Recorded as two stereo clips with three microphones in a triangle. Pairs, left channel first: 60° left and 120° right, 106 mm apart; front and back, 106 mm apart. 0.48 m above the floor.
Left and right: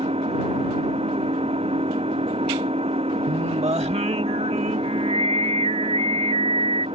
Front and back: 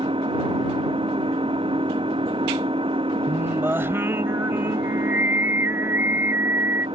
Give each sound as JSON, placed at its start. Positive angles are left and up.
{"t": 0.0, "sound": "an engine running", "azimuth_deg": -145}
{"t": 3.3, "sound": "singing", "azimuth_deg": -110}